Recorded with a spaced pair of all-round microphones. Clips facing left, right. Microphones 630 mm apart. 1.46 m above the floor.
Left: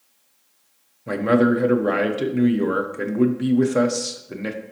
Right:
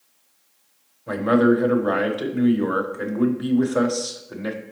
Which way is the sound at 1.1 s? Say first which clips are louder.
Even; 50° left (ahead or behind).